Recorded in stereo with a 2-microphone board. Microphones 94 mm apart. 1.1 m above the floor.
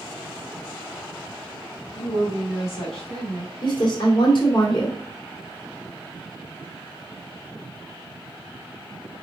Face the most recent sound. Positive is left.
turn(degrees=55)  # may be behind; listen again after turning